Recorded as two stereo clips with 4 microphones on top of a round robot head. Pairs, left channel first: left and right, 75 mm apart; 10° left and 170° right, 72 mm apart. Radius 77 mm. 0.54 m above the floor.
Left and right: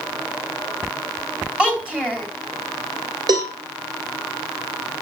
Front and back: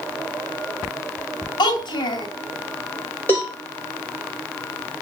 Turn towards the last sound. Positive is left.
turn(degrees=-60)